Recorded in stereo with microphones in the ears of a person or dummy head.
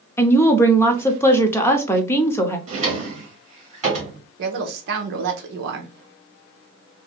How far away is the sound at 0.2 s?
About 0.6 m.